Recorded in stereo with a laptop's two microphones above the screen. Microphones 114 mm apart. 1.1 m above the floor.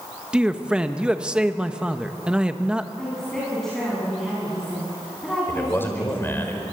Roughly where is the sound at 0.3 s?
Centre.